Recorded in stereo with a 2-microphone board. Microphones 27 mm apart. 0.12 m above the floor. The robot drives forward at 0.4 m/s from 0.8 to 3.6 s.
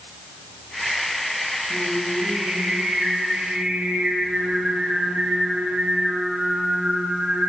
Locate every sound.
1.7 s singing: 85° right, 8.5 m